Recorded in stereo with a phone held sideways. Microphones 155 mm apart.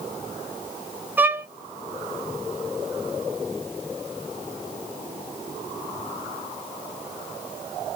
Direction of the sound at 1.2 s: 10° right (ahead or behind).